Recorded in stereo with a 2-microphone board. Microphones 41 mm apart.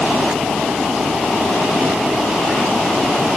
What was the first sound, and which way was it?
Only background noise.